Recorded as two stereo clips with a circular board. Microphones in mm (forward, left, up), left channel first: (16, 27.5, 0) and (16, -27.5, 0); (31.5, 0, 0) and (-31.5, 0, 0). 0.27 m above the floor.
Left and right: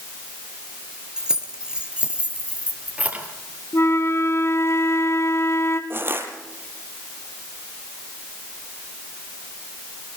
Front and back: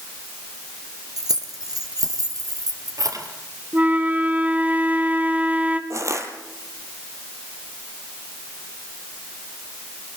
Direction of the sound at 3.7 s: 120° left.